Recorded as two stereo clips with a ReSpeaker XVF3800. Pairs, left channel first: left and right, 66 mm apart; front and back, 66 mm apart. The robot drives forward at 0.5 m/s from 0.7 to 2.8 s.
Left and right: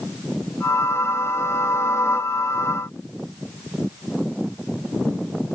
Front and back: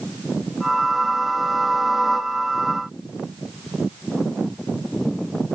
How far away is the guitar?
I don't hear a guitar.